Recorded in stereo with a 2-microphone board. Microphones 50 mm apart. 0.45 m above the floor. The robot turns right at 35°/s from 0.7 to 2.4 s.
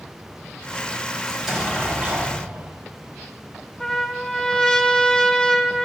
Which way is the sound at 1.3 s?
Straight behind.